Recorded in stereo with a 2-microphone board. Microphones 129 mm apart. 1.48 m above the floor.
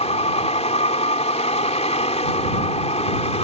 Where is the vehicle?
55° left (ahead or behind).